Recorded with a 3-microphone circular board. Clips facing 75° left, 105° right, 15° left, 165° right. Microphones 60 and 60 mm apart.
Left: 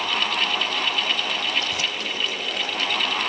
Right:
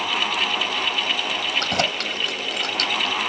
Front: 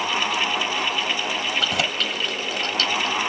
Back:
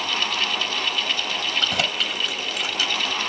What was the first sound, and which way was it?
Keys jangling, 70° right.